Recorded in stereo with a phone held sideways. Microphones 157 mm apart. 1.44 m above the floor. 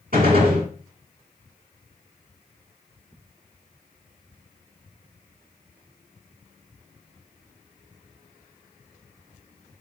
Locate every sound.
0.1 s a gunshot: 65° right (ahead or behind), 1.6 m